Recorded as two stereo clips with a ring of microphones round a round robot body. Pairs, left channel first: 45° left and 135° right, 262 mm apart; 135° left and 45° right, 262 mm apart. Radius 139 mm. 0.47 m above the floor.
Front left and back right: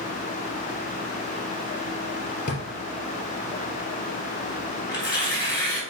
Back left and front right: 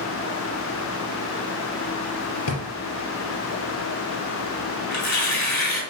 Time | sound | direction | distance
2.5 | a drawer | 105° left | 2.5 m
4.9 | tearing paper | 120° left | 4.5 m